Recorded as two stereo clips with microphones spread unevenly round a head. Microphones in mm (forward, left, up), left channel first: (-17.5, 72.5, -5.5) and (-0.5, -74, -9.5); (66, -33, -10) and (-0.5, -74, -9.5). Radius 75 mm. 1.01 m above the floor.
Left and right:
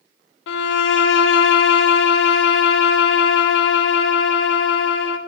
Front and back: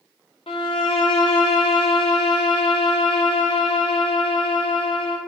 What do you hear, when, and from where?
0.5 s a violin: 85° left, 0.5 m